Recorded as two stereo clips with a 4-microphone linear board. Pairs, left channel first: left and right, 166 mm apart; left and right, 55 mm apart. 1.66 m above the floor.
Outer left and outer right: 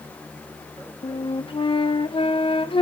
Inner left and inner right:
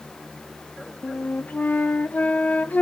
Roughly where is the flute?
Left.